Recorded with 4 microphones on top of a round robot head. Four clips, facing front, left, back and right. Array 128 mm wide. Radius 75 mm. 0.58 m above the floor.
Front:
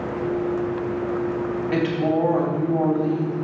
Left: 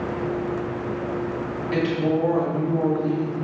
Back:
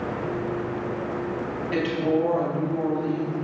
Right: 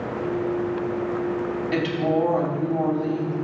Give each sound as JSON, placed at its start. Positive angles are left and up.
{"t": 1.7, "sound": "a woman speaking", "azimuth_deg": -20, "distance_m": 3.5}